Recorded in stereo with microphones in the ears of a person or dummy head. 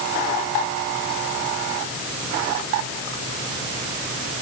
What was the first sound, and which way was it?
Only background noise.